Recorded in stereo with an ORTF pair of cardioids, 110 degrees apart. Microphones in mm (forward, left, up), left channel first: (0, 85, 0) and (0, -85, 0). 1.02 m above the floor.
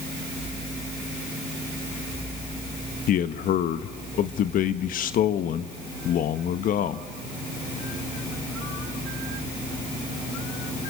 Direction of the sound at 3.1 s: 55° left.